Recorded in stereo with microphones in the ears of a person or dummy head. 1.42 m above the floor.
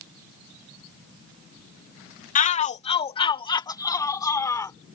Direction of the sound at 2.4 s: 40° left (ahead or behind).